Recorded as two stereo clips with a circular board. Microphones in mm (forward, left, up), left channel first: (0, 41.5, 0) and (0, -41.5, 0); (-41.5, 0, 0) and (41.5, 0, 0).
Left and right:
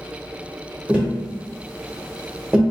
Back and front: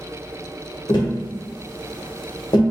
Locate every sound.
0.9 s tapping: 165° right, 0.8 m